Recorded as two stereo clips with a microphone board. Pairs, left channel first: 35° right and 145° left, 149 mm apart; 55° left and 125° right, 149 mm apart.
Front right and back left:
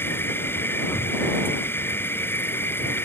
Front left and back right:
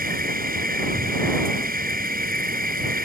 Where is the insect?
110° right.